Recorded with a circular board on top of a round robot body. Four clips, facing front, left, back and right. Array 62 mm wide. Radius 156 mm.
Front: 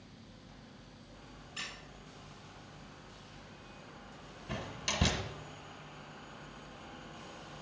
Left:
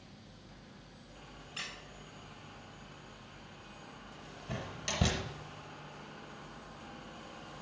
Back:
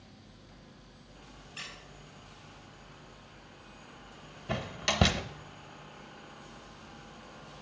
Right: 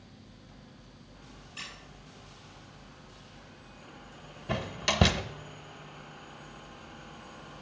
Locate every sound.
1.6 s a squeak: 70° left, 3.5 m
4.5 s a door slam: 130° right, 0.6 m